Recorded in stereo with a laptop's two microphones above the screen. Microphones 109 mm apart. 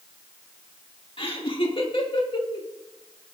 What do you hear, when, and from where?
1.2 s laughter: 50° left (ahead or behind), 2.5 m